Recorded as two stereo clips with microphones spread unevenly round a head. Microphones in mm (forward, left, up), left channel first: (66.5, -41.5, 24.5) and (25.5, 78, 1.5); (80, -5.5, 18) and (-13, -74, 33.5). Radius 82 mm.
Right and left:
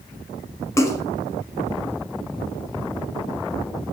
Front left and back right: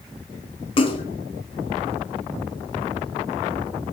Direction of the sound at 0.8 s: 5° right.